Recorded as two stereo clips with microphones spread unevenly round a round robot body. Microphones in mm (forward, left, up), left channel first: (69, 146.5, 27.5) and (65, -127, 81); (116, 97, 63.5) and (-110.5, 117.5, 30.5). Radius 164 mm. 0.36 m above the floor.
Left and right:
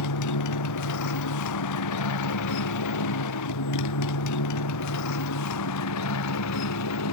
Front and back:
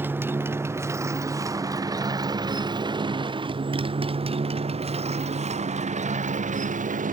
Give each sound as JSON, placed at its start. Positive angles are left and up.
{"t": 0.0, "sound": "a motorcycle", "azimuth_deg": 95}